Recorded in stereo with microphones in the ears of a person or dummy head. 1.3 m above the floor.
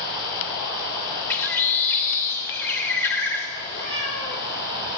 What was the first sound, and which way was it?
A bird, 10° left (ahead or behind).